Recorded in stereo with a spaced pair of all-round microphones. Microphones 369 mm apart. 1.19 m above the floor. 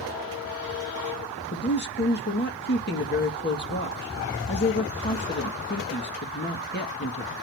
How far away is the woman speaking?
About 1.8 m.